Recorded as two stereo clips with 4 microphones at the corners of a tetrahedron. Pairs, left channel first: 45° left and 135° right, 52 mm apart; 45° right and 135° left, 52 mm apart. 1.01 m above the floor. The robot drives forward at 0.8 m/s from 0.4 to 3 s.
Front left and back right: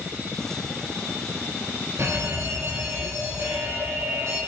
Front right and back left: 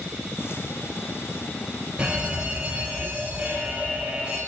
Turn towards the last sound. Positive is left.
turn(degrees=-160)